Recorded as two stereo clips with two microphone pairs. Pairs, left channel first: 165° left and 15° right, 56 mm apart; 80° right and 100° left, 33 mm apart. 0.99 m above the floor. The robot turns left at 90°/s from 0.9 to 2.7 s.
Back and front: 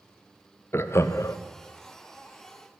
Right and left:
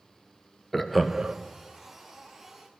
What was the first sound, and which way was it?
Laughter, 165° right.